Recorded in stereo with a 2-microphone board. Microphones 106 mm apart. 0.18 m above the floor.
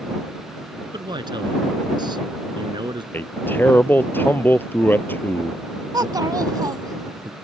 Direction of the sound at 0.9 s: 45° right (ahead or behind).